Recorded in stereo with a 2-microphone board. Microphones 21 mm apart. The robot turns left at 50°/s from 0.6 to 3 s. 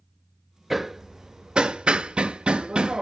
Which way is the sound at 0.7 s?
10° right (ahead or behind).